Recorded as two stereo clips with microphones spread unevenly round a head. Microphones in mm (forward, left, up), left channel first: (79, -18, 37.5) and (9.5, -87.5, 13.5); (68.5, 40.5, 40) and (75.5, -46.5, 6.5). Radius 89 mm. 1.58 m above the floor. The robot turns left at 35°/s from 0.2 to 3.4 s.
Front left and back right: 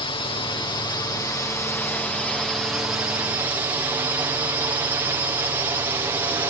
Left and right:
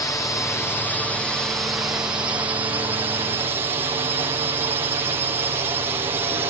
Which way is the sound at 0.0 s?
35° left.